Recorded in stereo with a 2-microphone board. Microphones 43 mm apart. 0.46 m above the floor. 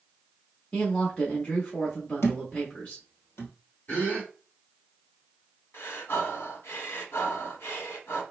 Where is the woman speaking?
35° left (ahead or behind), 1.0 m.